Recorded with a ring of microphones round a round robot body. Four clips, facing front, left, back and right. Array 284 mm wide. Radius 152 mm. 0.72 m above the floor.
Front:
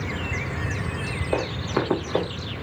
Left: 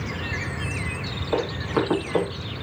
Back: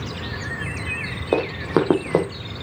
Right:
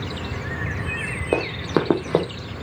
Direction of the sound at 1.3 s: 135° right.